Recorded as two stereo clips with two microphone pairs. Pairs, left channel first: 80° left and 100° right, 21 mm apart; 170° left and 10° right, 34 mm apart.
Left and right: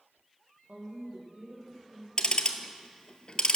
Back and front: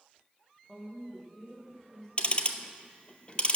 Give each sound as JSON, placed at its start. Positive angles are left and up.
{"t": 0.7, "sound": "a woman speaking", "azimuth_deg": -105, "distance_m": 5.0}
{"t": 2.2, "sound": "ticking", "azimuth_deg": 120, "distance_m": 0.8}